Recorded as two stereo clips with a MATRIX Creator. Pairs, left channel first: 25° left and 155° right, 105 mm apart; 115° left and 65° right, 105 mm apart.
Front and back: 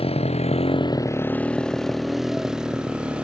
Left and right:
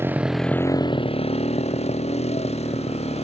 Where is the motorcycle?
Straight ahead; by 3.2 s 120° left.